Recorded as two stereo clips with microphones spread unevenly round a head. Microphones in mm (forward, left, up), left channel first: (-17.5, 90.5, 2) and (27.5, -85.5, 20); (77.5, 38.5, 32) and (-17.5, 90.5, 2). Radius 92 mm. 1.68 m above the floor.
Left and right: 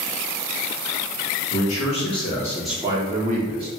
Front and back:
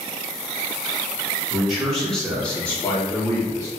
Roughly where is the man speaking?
Ahead left.